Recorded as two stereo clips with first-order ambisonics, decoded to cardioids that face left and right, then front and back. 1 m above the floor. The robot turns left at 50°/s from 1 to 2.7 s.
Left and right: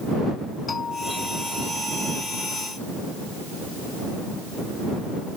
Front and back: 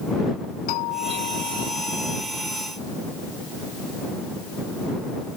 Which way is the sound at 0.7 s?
20° left.